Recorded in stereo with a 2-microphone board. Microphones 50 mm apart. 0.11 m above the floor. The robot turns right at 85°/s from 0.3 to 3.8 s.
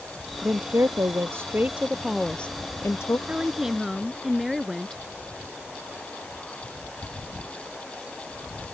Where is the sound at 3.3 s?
45° right; by 5.0 s straight ahead.